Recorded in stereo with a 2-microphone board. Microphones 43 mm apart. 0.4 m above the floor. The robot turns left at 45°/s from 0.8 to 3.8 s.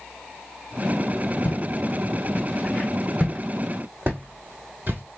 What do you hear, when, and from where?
1.4 s footsteps: 60° left (ahead or behind), 3 m; by 5.0 s 50° right (ahead or behind), 0.9 m